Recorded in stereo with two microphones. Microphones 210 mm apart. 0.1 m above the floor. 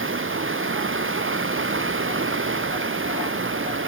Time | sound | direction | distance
0.0 | running water | 75° right (ahead or behind) | 1.5 m